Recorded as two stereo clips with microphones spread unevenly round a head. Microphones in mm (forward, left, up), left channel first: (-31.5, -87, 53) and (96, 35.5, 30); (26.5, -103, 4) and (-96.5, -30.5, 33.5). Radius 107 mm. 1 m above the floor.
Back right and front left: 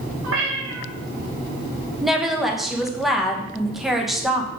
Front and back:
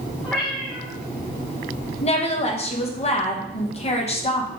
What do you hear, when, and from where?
0.2 s a cat meowing: 60° left, 1.8 m
2.0 s a woman speaking: 40° right, 1.2 m